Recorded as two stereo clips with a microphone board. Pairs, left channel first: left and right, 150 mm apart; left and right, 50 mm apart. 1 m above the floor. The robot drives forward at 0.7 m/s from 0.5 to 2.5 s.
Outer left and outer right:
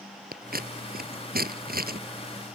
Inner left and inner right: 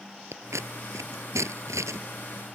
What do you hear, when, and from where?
0.3 s scissors: 80° right; by 2.0 s 85° right